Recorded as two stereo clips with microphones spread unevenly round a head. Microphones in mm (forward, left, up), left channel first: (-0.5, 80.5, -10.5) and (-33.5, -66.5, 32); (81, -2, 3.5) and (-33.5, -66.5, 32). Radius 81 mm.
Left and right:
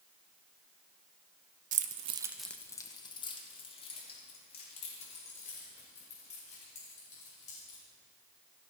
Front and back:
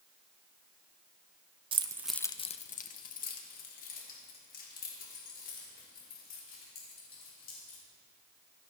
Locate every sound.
1.7 s keys jangling: 115° right, 0.9 m; by 7.8 s 25° left, 8.5 m